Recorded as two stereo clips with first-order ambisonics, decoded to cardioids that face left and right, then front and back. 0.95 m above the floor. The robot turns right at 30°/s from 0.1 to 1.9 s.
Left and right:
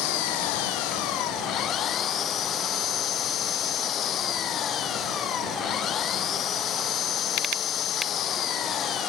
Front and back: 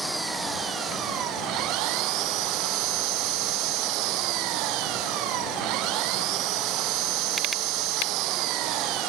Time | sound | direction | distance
0.0 | an engine running | 95° left | ?